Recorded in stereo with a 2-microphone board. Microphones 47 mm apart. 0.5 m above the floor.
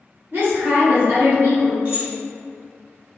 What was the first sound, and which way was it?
A woman speaking, 50° right (ahead or behind).